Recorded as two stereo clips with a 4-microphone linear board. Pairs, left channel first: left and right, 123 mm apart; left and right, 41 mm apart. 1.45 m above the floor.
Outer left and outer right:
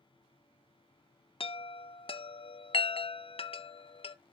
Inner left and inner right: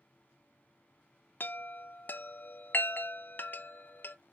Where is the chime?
50° left (ahead or behind), 0.6 m.